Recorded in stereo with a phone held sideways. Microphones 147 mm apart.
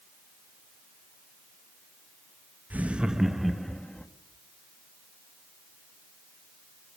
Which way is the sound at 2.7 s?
10° right (ahead or behind).